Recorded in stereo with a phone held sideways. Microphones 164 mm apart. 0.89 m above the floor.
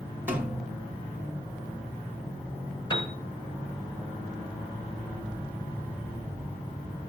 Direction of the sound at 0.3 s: 10° right (ahead or behind).